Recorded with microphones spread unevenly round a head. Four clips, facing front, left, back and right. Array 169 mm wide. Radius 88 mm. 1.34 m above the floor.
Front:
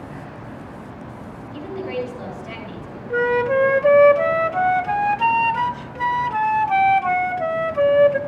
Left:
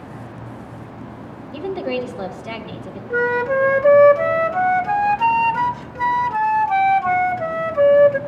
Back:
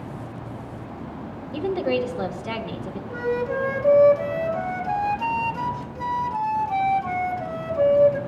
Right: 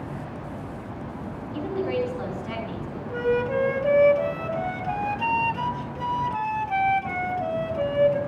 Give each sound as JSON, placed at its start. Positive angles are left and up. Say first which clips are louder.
{"t": 1.5, "sound": "a woman speaking", "louder": "left 3 dB, back 4 dB", "azimuth_deg": 150, "distance_m": 1.7}
{"t": 3.1, "sound": "a flute", "louder": "left 5 dB, front 7 dB", "azimuth_deg": 55, "distance_m": 0.6}